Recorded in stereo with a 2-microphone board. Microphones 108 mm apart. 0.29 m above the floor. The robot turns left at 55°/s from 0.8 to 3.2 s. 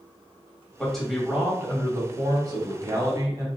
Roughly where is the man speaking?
Ahead.